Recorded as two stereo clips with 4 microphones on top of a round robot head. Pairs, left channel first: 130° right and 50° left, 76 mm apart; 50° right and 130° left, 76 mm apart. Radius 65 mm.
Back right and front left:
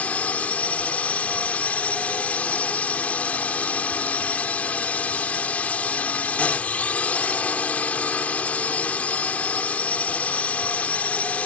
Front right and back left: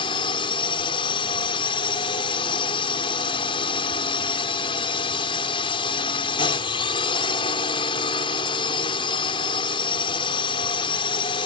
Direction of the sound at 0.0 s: 55° right.